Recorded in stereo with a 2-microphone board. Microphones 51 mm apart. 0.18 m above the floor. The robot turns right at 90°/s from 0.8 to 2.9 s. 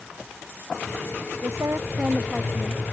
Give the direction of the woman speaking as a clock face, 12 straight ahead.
3 o'clock.